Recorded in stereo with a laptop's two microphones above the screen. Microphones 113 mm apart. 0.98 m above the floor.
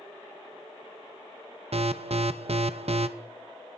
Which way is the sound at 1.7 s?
65° right (ahead or behind).